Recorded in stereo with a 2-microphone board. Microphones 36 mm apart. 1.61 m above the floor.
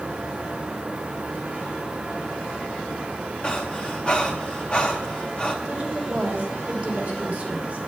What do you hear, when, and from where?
3.4 s breathing: 30° left (ahead or behind), 1.3 m
5.7 s a woman speaking: 35° right (ahead or behind), 3.5 m